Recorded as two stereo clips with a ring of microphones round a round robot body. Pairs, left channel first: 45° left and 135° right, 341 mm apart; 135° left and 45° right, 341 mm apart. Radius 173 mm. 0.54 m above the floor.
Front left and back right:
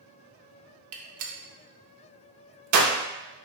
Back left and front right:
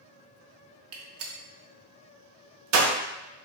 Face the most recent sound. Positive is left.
turn(degrees=-95)